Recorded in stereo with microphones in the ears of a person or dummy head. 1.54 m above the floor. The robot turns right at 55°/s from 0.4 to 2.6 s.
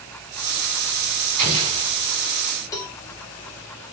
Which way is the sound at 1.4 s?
35° right (ahead or behind).